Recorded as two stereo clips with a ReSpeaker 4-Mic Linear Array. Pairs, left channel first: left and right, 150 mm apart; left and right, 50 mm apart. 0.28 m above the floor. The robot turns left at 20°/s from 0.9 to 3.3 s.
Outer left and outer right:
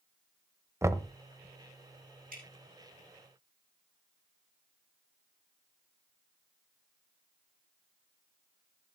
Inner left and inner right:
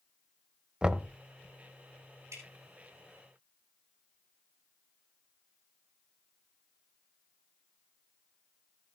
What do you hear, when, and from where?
0.8 s knocking: 20° right (ahead or behind), 0.9 m
2.3 s dripping: 80° right, 6 m; by 2.4 s 75° right (ahead or behind), 6 m